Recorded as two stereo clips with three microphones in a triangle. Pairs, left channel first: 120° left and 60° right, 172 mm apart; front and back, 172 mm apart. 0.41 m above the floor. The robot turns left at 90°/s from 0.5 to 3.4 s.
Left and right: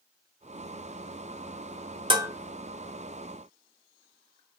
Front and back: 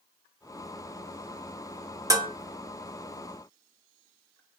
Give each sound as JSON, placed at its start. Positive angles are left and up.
{"t": 2.1, "sound": "dishes clattering", "azimuth_deg": -115, "distance_m": 0.8}